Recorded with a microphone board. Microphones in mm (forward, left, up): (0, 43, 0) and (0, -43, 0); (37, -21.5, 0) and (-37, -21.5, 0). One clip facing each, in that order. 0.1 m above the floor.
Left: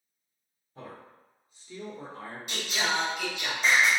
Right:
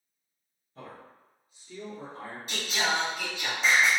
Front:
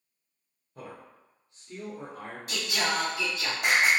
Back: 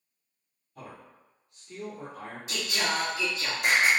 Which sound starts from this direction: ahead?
A man speaking, at 0.8 s.